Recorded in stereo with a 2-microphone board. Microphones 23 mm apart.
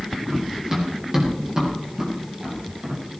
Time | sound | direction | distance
0.3 | running footsteps | 20° right (ahead or behind) | 7 m